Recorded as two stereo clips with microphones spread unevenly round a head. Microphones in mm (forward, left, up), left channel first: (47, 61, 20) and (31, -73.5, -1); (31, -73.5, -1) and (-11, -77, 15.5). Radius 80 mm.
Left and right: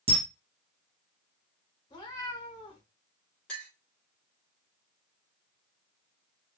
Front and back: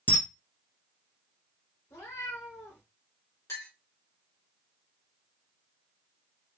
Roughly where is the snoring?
No snoring in this recording.